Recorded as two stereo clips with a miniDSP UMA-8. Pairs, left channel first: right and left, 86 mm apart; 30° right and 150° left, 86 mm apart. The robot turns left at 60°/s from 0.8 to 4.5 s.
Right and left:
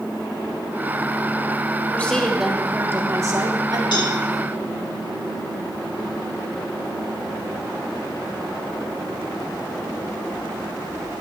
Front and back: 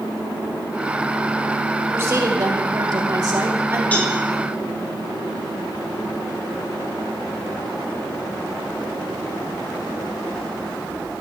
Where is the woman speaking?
155° right, 1.7 m; by 3.8 s 90° left, 1.7 m.